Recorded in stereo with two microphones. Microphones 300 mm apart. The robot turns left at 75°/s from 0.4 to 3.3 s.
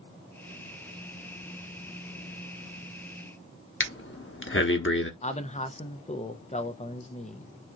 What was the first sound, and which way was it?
Breathing, 40° left (ahead or behind).